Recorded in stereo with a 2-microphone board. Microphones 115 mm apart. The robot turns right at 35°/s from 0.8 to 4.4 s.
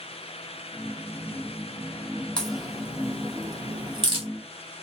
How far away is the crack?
About 1.7 m.